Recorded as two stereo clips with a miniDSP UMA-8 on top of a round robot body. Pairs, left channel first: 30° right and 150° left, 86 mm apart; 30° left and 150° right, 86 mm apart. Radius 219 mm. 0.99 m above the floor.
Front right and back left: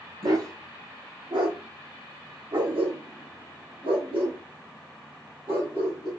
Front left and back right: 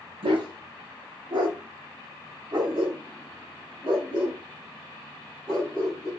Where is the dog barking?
165° right, 0.7 m; by 6.1 s 165° left, 4 m.